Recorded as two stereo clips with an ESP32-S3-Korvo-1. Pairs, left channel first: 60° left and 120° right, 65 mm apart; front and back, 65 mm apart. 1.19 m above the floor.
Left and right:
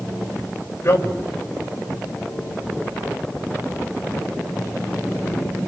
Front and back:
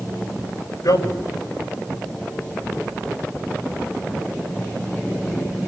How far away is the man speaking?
About 6 m.